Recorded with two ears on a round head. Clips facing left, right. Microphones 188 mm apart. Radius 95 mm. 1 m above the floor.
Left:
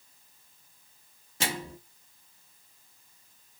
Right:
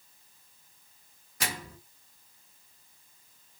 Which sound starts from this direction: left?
A microwave, at 1.4 s.